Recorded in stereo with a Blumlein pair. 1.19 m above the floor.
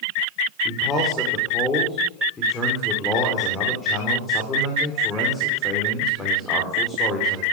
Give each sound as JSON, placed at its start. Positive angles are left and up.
{"t": 0.7, "sound": "a man speaking", "azimuth_deg": 15, "distance_m": 4.0}